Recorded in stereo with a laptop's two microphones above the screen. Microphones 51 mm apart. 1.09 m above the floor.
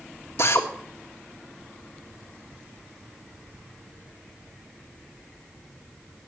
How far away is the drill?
About 1.8 m.